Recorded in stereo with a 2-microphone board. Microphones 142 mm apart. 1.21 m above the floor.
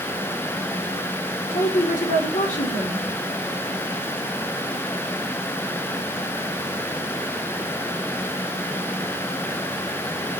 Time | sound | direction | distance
1.5 | a woman speaking | 70° left (ahead or behind) | 4.5 m